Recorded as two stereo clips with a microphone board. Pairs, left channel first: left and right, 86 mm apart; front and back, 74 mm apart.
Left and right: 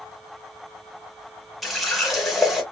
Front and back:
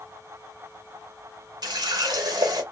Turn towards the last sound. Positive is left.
turn(degrees=180)